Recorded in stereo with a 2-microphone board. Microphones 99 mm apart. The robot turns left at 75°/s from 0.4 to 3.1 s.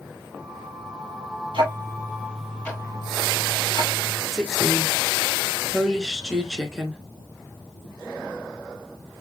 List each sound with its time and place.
1.5 s ticking: 60° right (ahead or behind), 1.8 m; by 4.2 s 45° left (ahead or behind), 1.8 m
4.3 s a woman speaking: 5° right (ahead or behind), 1.2 m